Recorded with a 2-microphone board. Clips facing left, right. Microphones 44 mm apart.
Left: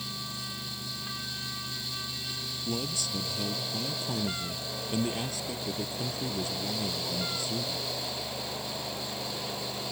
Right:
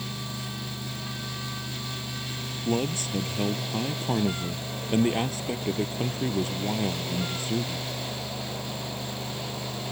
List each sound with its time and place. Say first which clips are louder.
2.6 s a man speaking: right 7 dB; 40° right (ahead or behind)